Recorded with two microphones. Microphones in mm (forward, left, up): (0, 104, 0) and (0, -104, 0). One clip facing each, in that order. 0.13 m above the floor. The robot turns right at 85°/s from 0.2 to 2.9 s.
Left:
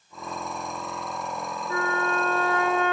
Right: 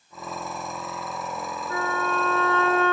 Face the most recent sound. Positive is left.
turn(degrees=-115)